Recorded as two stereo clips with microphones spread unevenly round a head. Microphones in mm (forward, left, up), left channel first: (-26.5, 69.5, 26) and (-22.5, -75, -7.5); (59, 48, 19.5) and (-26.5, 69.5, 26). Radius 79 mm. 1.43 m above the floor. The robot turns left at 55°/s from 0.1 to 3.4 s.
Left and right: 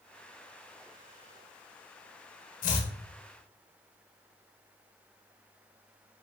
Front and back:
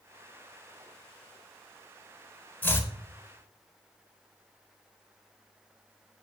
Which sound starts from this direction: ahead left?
Chopping, at 2.6 s.